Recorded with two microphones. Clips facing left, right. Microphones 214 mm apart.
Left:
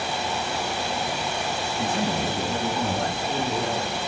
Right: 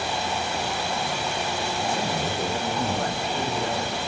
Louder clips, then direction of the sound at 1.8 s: Left 3 dB; 55° left (ahead or behind).